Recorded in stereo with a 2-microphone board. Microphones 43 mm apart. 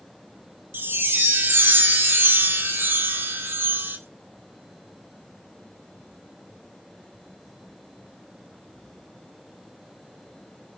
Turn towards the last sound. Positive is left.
turn(degrees=-55)  # may be behind; listen again after turning